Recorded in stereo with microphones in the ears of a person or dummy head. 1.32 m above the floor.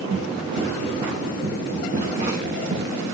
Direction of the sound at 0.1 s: 65° right (ahead or behind).